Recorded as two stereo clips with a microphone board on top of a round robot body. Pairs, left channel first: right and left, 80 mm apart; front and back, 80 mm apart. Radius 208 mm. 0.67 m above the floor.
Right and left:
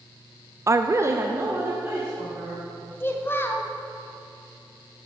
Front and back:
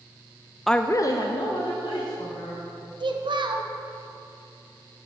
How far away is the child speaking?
About 0.9 m.